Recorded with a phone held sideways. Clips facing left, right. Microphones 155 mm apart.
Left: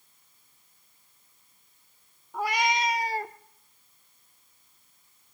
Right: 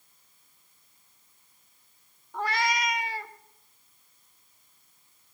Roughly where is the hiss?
No hiss in this recording.